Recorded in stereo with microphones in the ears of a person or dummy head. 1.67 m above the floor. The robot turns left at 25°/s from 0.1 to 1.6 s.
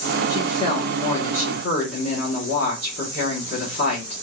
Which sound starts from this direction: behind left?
A woman speaking, at 0.3 s.